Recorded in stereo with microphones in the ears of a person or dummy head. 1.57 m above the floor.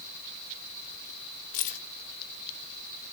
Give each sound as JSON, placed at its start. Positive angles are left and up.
{"t": 1.5, "sound": "keys jangling", "side_deg": 35, "distance_m": 0.6}